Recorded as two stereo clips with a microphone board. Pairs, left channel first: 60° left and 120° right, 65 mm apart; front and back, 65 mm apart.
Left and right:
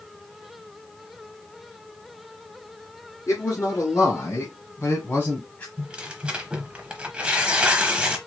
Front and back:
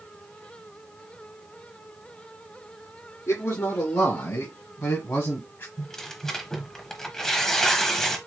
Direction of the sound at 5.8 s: 70° right.